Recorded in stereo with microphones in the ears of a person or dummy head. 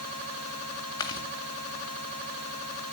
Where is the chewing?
20° left (ahead or behind), 1.8 m.